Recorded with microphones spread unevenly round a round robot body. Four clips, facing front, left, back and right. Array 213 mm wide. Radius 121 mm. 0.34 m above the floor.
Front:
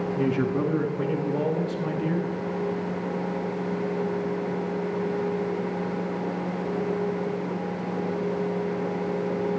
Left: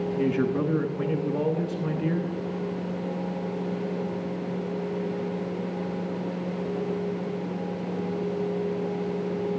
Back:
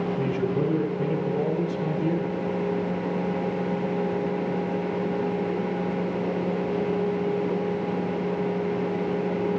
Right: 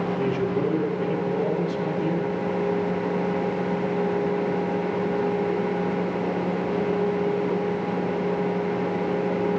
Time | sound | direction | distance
0.2 | a man speaking | 15° left | 4 m